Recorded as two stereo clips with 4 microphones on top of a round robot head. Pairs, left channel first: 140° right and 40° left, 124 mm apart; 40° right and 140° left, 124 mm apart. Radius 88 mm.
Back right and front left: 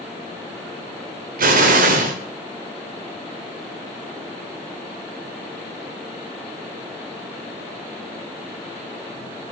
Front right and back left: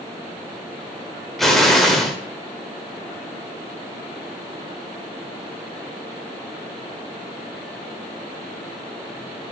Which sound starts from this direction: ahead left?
An explosion, at 1.4 s.